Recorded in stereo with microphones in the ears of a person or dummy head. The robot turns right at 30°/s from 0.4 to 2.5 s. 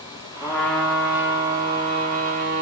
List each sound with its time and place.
0.4 s a trumpet: 165° left, 2.0 m; by 2.6 s 130° right, 2.0 m